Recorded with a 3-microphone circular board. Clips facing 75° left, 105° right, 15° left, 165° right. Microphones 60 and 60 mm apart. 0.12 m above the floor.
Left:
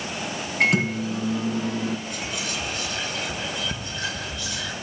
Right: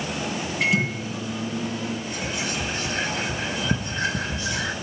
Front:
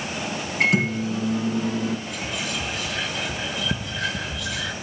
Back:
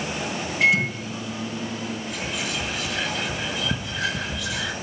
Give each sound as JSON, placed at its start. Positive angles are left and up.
{"t": 0.6, "sound": "a microwave", "azimuth_deg": 45, "distance_m": 3.0}
{"t": 2.1, "sound": "whispering", "azimuth_deg": -75, "distance_m": 1.9}